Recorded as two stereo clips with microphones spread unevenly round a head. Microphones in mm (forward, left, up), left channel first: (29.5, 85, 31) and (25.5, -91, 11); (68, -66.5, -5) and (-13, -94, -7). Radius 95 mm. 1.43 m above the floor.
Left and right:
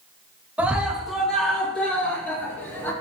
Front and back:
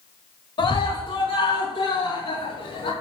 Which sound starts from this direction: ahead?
A scream, at 0.6 s.